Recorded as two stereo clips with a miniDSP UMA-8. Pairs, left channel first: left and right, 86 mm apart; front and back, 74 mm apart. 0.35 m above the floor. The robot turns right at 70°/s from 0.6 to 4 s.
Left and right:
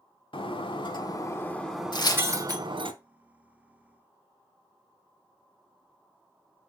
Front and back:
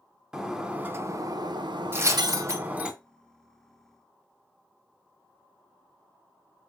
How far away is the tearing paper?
About 0.6 m.